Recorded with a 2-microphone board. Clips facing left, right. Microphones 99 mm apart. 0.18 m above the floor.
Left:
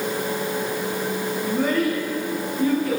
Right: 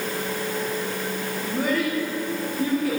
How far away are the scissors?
No scissors in this recording.